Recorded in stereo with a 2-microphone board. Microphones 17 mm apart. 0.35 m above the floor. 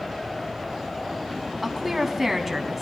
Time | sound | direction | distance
1.6 | a woman speaking | 5° right (ahead or behind) | 3 m